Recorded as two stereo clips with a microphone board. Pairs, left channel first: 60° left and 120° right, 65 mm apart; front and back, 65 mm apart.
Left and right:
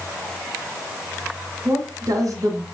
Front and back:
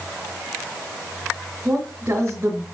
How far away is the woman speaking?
About 3.5 m.